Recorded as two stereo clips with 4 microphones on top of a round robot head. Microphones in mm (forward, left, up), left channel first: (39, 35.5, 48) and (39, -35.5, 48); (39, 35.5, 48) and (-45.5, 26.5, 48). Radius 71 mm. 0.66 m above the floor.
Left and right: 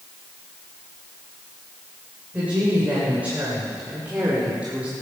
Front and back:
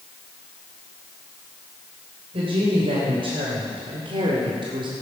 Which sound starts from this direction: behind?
A woman speaking, at 2.3 s.